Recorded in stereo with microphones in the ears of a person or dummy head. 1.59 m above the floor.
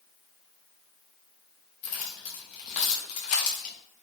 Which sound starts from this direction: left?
Keys jangling, at 1.8 s.